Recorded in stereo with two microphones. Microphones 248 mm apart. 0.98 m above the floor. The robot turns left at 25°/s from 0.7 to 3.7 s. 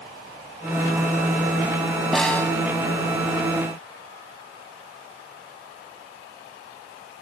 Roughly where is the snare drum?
Centre.